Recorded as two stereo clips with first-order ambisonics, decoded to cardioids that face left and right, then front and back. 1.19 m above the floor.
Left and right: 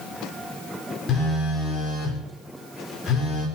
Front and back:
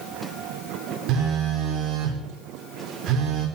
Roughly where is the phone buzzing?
Behind left.